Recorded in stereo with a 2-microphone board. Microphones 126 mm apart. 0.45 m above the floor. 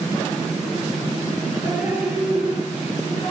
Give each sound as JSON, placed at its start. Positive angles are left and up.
{"t": 1.6, "sound": "dripping", "side_deg": -10, "distance_m": 8.0}